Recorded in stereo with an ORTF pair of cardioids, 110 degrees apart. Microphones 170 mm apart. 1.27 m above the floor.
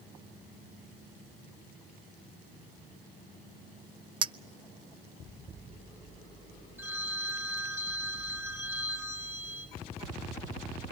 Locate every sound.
4.2 s a clink: 30° right, 0.6 m
6.8 s a phone ringing: 10° right, 5.5 m